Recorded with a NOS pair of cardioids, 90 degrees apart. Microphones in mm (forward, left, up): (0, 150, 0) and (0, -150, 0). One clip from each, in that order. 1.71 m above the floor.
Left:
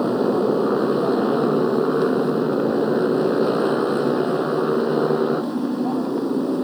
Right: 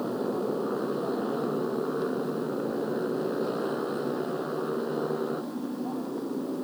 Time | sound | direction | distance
0.0 | a motorcycle | 70° left | ?